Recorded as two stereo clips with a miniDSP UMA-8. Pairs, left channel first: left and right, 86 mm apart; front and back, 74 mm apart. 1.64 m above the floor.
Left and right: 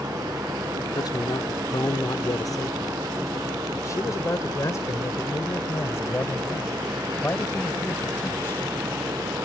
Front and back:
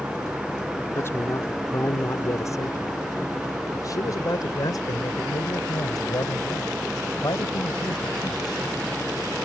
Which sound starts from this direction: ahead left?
A man speaking, at 0.9 s.